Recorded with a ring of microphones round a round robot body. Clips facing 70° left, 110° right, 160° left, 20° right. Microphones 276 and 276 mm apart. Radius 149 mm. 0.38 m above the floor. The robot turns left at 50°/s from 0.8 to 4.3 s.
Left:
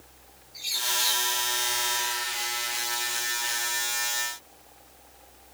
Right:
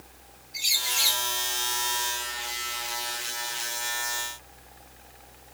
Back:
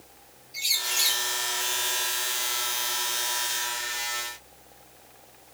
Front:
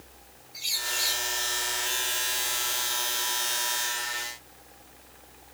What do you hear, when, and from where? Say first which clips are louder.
0.5 s a bird: left 2 dB, even; 155° right, 3 m; by 1.2 s straight behind, 3 m